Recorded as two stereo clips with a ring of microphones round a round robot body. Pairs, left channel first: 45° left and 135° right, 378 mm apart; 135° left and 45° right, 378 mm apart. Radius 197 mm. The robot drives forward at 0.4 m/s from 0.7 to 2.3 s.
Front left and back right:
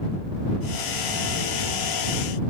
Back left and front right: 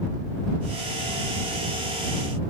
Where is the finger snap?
I don't hear a finger snap.